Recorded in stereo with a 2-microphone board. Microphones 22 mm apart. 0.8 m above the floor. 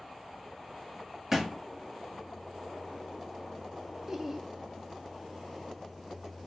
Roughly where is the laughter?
Centre.